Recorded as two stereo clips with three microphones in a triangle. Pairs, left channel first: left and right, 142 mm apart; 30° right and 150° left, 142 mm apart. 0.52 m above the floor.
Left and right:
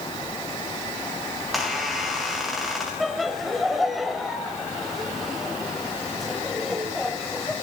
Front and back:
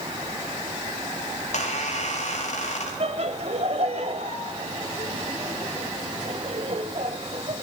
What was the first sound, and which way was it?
A squeak, straight ahead.